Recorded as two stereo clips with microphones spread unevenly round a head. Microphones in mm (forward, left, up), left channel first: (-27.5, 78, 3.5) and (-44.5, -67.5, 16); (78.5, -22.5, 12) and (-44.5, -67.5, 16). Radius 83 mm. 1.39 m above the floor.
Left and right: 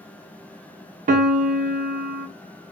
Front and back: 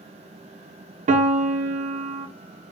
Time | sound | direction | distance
1.1 | a piano | 130° right | 0.6 m